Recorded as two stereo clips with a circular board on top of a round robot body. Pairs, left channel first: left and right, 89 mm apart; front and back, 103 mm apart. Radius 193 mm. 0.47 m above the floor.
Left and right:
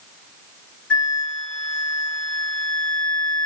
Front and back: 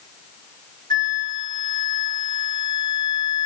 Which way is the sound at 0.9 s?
20° left.